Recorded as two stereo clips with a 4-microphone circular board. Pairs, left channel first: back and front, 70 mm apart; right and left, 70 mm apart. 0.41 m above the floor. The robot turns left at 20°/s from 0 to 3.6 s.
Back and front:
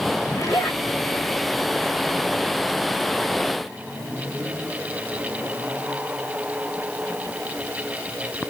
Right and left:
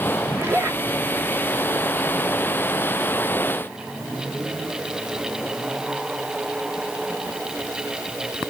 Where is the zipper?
150° left, 1.5 m; by 0.8 s 135° left, 1.5 m.